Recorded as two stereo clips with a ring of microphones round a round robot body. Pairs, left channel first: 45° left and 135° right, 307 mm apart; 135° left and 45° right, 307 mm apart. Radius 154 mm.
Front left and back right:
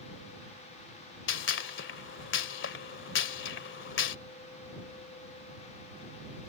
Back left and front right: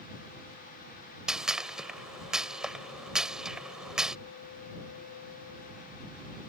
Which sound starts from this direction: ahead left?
A gunshot, at 1.3 s.